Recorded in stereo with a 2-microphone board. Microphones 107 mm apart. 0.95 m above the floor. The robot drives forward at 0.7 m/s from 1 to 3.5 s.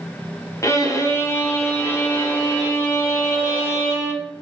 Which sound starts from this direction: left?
A violin, at 0.6 s.